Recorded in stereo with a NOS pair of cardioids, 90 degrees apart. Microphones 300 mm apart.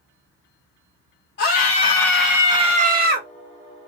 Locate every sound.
1.4 s a scream: 35° left, 0.7 m; by 3.3 s 40° right, 0.9 m